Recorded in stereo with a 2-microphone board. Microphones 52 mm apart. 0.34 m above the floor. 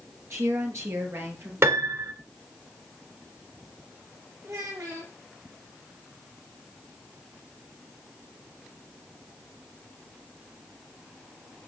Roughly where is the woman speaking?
Right.